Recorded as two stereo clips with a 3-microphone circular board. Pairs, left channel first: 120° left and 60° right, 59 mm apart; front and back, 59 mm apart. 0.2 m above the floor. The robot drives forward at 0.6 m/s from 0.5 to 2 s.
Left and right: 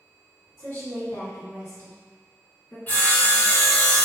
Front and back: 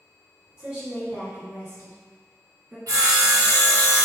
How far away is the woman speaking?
About 1.3 m.